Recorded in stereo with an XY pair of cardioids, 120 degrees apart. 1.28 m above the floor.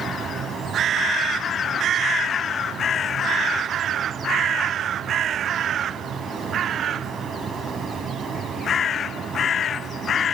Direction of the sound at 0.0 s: 40° right.